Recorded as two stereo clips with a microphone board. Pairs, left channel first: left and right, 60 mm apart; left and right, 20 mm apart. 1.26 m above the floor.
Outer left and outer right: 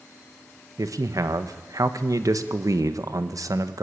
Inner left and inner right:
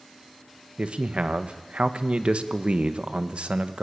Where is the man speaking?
70° right (ahead or behind), 1.3 m.